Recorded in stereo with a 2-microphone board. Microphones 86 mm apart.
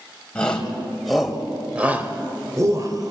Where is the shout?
10° left (ahead or behind), 3 m; by 3.1 s 45° right (ahead or behind), 2 m.